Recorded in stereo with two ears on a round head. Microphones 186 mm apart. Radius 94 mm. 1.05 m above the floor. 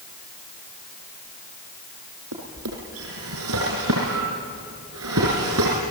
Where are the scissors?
I don't hear scissors.